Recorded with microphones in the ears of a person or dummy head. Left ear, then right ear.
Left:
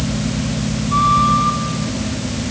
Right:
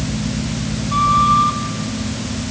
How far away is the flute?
About 2 m.